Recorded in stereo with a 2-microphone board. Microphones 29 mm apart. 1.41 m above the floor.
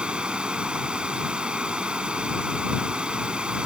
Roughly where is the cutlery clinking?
No cutlery clinking in this recording.